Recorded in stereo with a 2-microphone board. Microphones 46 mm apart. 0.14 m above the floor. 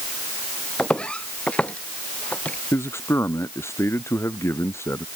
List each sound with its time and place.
0.8 s footsteps: 20° left (ahead or behind); by 2.6 s 35° left (ahead or behind)
2.7 s a man speaking: 60° left (ahead or behind)